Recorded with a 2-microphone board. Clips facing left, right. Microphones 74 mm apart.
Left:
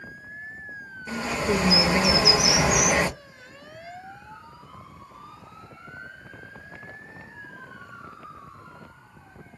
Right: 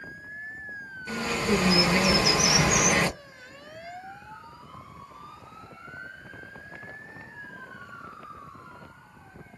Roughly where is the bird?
Centre.